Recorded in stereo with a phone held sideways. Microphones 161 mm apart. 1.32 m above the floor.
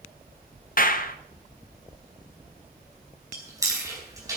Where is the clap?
60° left (ahead or behind), 0.9 m.